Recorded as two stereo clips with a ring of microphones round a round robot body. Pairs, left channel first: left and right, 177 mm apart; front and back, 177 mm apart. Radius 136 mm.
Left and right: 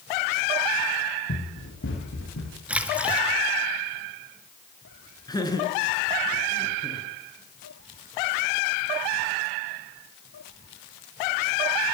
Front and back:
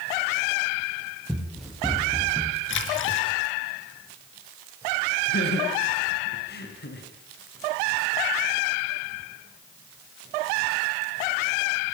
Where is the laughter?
20° left, 6.5 m.